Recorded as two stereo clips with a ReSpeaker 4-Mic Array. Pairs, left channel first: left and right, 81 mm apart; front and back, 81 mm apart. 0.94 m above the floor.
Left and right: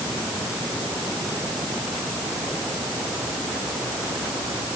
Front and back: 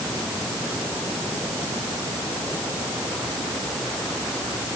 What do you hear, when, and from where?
Only background noise.